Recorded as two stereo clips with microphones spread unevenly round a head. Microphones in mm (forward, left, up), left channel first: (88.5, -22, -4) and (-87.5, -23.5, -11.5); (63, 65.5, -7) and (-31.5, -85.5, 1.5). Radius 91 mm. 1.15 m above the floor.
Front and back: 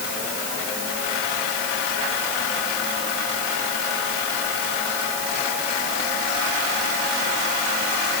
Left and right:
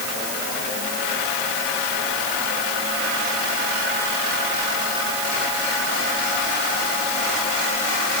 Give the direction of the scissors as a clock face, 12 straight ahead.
I don't hear scissors.